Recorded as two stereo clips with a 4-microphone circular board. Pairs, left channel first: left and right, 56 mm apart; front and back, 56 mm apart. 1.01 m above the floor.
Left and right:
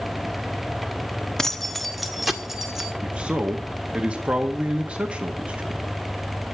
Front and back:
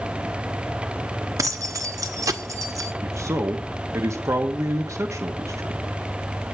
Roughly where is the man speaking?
Behind.